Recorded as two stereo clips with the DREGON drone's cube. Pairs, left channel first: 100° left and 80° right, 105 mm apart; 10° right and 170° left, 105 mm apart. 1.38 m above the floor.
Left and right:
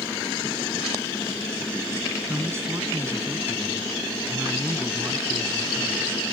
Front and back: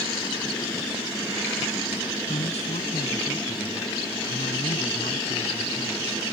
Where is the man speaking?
15° right.